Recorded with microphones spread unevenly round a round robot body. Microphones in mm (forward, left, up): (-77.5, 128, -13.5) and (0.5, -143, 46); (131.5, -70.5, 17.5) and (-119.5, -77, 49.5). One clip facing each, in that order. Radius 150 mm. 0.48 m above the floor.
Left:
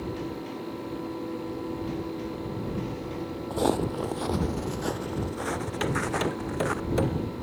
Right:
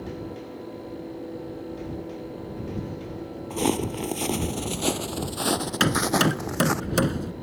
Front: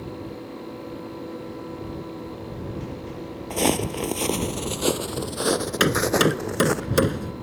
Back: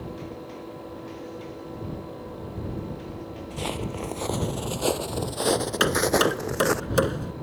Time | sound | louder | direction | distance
3.5 | footsteps | right 1 dB, front 10 dB | 10° right | ?
5.8 | hammering | right 5 dB, front 3 dB | 50° right | ?